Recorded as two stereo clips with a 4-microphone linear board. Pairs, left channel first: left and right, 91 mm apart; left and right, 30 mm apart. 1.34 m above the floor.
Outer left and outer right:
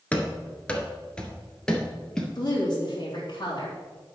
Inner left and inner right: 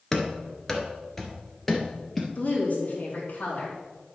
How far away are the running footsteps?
About 1.3 m.